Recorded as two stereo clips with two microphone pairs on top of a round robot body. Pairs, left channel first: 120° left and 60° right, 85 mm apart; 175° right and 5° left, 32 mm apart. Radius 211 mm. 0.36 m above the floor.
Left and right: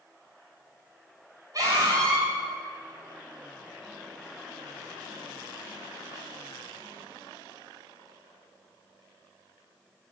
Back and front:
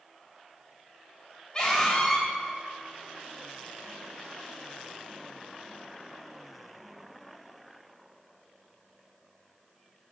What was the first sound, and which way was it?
A scream, 110° right.